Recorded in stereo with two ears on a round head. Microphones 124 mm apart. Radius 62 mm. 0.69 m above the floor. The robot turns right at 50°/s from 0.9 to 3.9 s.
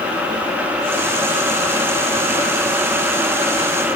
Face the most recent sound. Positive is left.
No sound to turn to.